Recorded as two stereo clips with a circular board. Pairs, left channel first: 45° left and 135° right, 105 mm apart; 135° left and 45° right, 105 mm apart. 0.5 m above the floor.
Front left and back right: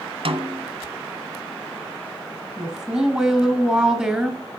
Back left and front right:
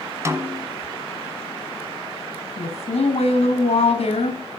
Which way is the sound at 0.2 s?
110° right.